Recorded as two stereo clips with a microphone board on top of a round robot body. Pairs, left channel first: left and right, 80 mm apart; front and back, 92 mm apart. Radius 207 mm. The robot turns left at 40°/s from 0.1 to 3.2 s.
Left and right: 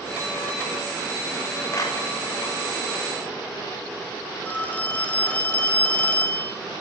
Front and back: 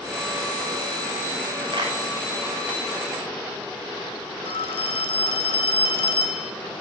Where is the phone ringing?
20° left, 0.6 m.